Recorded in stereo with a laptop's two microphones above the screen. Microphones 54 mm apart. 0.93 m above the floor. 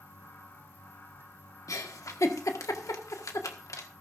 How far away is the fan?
About 1.7 m.